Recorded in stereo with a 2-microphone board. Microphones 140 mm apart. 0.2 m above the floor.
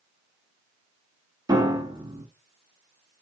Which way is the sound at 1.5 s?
25° right (ahead or behind).